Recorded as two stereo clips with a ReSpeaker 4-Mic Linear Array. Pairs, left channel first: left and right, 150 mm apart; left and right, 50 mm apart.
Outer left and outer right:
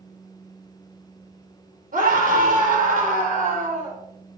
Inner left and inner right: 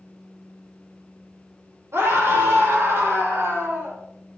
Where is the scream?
70° right (ahead or behind), 5 m; by 4.0 s 60° right (ahead or behind), 5 m.